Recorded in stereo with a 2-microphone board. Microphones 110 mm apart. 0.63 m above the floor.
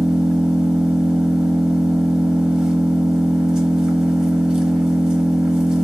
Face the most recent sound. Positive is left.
turn(degrees=-5)  # may be behind; listen again after turning